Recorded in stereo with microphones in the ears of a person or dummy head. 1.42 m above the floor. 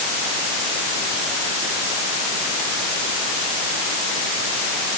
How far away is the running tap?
No running tap in this recording.